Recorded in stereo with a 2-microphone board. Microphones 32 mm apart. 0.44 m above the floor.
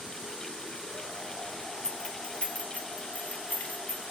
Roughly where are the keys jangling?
Left.